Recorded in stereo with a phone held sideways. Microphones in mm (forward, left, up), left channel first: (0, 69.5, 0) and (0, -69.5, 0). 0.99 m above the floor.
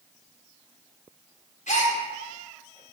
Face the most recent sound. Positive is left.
turn(degrees=65)  # may be behind; listen again after turning